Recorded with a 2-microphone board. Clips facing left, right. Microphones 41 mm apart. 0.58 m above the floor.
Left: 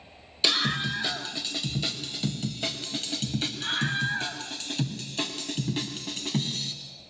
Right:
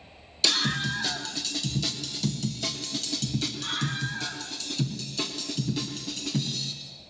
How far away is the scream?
About 3.5 m.